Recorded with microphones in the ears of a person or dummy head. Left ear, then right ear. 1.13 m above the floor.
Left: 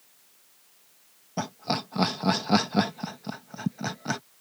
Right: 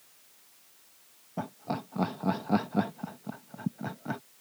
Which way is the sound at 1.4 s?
70° left (ahead or behind).